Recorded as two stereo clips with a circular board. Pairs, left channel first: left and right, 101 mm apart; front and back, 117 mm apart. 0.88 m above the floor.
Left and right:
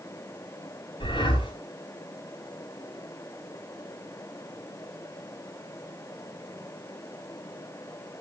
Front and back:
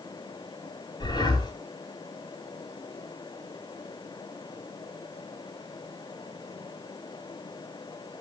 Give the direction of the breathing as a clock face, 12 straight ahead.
10 o'clock.